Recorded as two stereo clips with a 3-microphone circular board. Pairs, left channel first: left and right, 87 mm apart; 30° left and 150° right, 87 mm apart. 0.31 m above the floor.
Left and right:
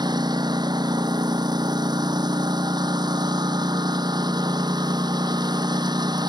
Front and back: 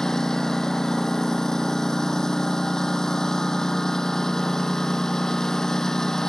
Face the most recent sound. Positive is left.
turn(degrees=-55)